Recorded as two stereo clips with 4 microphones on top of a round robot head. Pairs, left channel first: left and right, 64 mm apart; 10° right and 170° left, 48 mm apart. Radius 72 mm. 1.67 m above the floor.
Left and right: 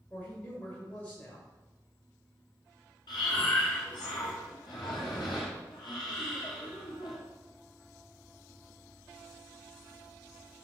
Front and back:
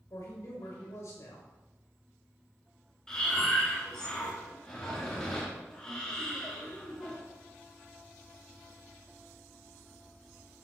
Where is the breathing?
65° left, 2 m.